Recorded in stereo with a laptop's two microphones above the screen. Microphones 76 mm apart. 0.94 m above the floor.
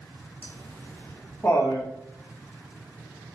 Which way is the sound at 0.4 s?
20° left (ahead or behind).